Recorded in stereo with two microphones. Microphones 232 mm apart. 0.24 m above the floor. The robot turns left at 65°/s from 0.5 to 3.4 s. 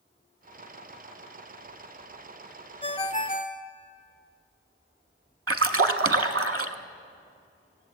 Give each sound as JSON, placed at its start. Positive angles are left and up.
{"t": 2.8, "sound": "a ringtone", "azimuth_deg": 140, "distance_m": 0.7}
{"t": 5.5, "sound": "a splash", "side_deg": -70, "distance_m": 0.6}